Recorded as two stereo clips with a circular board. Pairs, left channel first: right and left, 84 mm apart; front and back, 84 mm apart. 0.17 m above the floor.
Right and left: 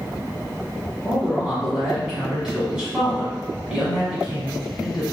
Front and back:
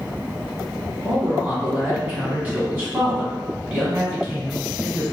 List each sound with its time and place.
1.0 s a man speaking: 160° left, 1.4 m